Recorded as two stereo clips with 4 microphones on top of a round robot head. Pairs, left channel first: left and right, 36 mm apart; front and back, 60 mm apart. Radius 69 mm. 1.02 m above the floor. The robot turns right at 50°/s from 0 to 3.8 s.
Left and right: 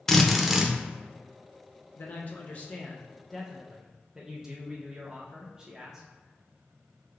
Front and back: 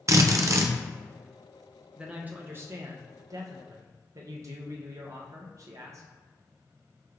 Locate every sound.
0.1 s a drill: 165° left, 0.5 m; by 0.7 s 160° right, 0.5 m
2.0 s a man speaking: 105° left, 0.5 m; by 6.1 s 160° right, 0.5 m